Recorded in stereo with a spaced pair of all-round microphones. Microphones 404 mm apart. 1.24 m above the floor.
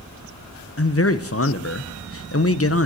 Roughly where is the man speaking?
Left.